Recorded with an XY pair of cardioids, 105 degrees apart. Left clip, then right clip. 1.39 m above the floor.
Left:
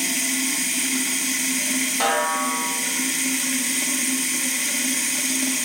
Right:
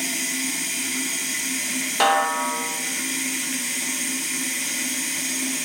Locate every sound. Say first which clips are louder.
0.0 s running water: left 2 dB; 30° left, 1.2 m
2.0 s a snare drum: right 4 dB; 50° right, 1.6 m